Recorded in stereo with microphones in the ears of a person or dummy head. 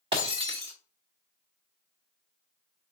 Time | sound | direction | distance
0.1 | breaking glass | 20° right (ahead or behind) | 1.0 m